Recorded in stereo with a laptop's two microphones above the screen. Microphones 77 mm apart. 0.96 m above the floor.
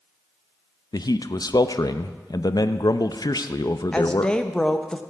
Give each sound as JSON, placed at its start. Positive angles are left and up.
{"t": 0.9, "sound": "a man speaking", "side_deg": 55, "distance_m": 0.6}
{"t": 3.9, "sound": "a woman speaking", "side_deg": 10, "distance_m": 0.7}